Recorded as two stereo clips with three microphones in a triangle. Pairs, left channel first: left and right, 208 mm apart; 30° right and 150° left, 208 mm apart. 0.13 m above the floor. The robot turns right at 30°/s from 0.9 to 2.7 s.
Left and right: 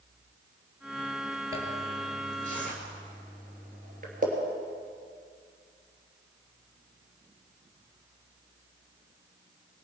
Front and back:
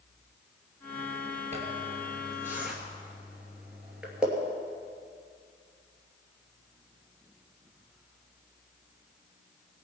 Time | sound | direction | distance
1.5 | a zipper | 160° right | 2.5 m